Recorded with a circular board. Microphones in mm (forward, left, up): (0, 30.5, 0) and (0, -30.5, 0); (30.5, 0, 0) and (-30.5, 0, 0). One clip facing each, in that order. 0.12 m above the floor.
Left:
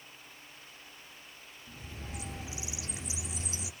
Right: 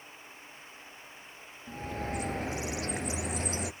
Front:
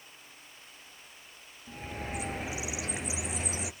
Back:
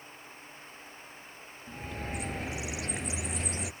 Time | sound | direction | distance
1.7 | a bird | 85° right | 0.6 m